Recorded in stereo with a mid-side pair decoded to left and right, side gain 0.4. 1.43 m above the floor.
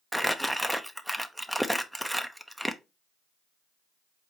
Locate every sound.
0.1 s crumpling: 5° right, 0.6 m